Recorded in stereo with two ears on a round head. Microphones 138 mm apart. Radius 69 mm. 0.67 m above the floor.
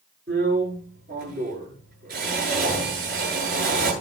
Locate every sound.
0.3 s a drill: 60° right (ahead or behind), 9.5 m